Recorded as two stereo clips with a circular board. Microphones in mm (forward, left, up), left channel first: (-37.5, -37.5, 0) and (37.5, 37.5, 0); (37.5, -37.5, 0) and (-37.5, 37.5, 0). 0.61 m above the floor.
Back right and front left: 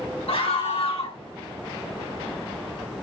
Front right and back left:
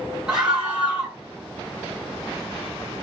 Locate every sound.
0.3 s a scream: 140° right, 5 m